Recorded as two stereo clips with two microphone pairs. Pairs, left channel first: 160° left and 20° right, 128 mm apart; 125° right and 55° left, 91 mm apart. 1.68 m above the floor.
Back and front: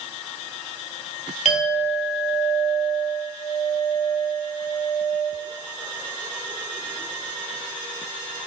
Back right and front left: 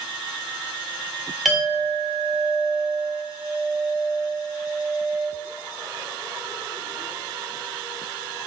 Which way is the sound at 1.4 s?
145° left.